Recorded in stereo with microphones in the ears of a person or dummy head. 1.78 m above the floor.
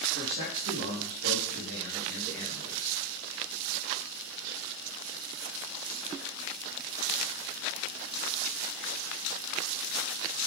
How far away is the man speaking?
About 2.5 m.